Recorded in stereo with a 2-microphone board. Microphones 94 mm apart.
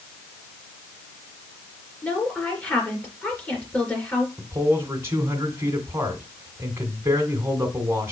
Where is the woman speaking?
15° left (ahead or behind), 3.5 m.